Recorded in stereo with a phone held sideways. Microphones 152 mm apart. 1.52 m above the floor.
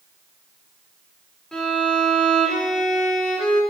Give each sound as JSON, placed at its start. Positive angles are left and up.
{"t": 1.5, "sound": "a violin", "side_deg": 5, "distance_m": 4.5}